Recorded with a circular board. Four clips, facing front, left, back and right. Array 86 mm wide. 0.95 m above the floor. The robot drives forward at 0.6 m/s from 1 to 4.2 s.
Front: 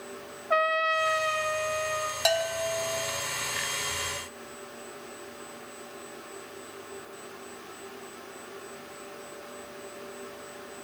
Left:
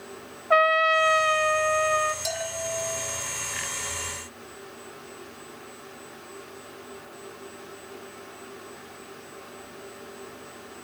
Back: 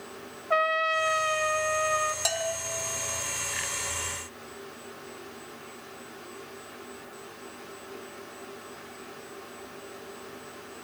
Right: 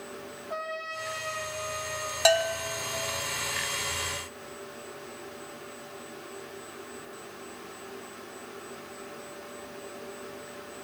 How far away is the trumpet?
About 1.8 m.